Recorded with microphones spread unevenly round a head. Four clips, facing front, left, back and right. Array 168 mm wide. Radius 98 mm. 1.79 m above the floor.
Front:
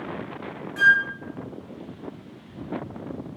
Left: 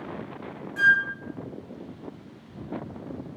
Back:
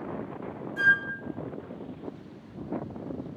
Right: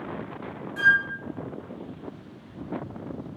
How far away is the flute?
About 1.0 m.